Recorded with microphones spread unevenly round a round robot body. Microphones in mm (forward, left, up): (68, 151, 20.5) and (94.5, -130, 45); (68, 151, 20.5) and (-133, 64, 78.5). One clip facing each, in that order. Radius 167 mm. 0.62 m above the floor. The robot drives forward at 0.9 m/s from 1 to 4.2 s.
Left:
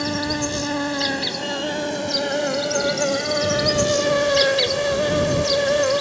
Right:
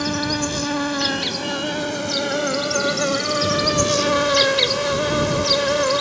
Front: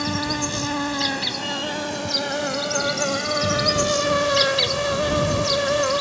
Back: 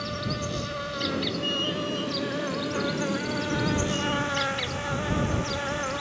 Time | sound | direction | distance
0.0 | an insect | 5° right | ?